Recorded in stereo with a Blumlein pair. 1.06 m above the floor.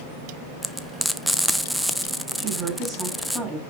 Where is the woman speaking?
10° right, 8.5 m.